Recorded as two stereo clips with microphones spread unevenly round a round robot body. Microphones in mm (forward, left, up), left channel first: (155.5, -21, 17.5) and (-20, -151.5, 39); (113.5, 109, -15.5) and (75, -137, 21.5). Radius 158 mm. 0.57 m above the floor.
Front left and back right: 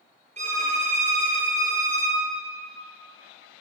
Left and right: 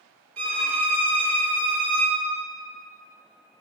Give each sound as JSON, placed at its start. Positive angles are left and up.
{"t": 0.4, "sound": "a violin", "azimuth_deg": -85, "distance_m": 4.5}